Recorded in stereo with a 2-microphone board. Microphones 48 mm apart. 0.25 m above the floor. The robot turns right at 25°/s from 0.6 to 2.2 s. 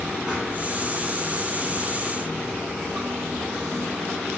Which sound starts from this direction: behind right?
Running water, at 0.0 s.